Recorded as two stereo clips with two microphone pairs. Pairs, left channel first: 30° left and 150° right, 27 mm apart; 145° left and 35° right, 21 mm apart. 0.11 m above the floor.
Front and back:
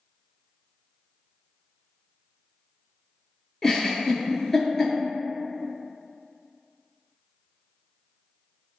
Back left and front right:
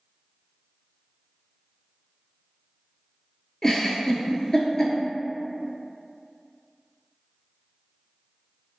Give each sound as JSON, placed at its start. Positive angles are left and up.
{"t": 3.6, "sound": "a giggle", "azimuth_deg": 100, "distance_m": 0.5}